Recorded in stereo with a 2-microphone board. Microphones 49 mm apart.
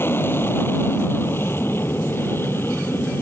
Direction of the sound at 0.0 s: 45° left (ahead or behind).